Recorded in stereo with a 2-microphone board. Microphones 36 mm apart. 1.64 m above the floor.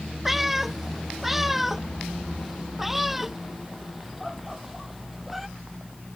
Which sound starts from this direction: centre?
A cat meowing, at 0.2 s.